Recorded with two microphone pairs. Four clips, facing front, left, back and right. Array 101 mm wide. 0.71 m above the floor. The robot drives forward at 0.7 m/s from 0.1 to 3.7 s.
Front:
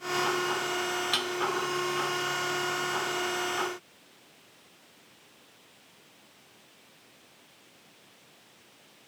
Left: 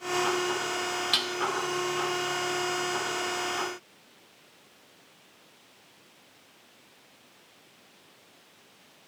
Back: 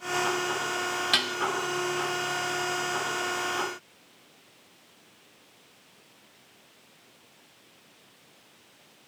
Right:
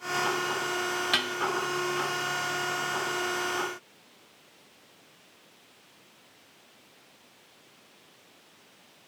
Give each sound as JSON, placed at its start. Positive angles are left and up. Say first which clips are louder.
{"t": 1.1, "sound": "dishes clattering", "louder": "right 2 dB, back 2 dB", "azimuth_deg": -135, "distance_m": 0.6}